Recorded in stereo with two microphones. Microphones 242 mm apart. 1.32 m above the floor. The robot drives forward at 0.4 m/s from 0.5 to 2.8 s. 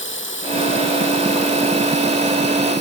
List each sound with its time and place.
0.0 s running water: 55° left (ahead or behind); by 2.8 s 45° left (ahead or behind)